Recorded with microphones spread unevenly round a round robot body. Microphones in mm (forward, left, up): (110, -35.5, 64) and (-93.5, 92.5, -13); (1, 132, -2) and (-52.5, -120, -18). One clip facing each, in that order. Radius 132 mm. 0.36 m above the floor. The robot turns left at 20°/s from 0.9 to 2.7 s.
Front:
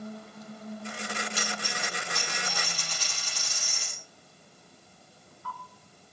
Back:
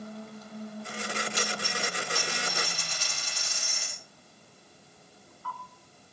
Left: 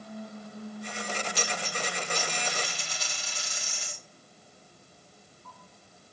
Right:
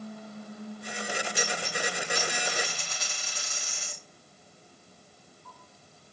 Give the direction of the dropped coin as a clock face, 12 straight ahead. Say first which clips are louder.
Back 3 dB, right 2 dB; 10 o'clock.